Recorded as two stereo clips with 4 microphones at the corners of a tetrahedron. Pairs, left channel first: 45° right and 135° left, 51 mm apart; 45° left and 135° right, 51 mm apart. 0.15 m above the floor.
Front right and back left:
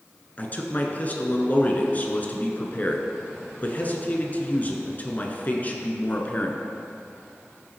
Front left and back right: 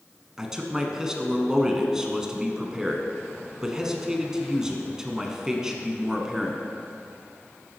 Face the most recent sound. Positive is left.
turn(degrees=-65)